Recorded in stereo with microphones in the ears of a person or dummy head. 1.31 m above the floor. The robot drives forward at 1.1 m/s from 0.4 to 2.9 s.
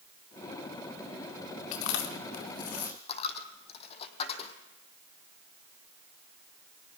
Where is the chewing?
75° left (ahead or behind), 2 m; by 3.0 s 50° left (ahead or behind), 2.5 m.